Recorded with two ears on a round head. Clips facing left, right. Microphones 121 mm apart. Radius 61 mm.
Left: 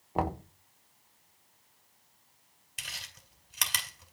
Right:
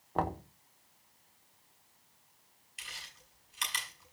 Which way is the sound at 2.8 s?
65° left (ahead or behind).